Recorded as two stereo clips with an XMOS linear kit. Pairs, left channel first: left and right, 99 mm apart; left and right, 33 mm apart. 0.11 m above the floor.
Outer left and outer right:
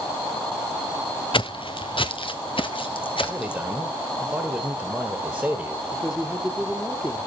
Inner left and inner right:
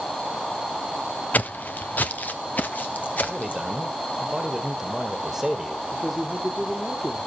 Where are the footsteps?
55° left (ahead or behind), 0.6 m; by 3.7 s 60° left (ahead or behind), 3 m.